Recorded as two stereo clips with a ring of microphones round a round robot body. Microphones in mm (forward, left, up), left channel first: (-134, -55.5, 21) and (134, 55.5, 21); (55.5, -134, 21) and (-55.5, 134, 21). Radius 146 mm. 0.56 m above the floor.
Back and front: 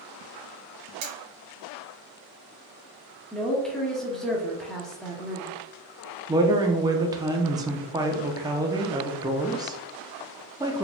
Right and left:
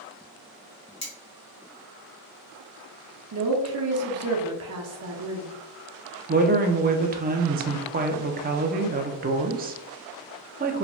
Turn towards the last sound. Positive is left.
turn(degrees=90)